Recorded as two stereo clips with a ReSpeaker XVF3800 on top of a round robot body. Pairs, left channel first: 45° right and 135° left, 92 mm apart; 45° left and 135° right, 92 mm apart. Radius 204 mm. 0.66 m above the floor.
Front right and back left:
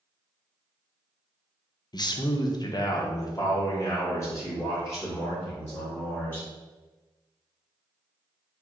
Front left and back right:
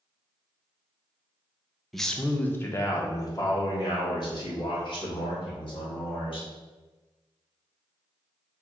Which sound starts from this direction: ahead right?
A man speaking, at 1.9 s.